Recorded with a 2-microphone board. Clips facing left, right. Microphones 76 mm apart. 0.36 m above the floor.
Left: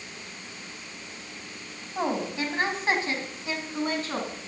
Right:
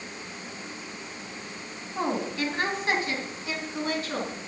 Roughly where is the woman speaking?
Left.